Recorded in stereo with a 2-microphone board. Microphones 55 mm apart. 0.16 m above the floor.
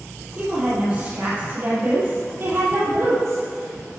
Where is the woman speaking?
20° right (ahead or behind), 3.5 m; by 3.4 s 50° right (ahead or behind), 4 m.